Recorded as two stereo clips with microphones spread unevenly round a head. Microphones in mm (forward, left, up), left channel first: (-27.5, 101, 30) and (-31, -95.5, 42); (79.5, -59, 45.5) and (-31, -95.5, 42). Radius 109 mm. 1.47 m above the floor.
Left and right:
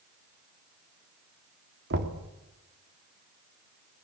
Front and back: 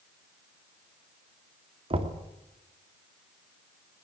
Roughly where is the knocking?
Behind right.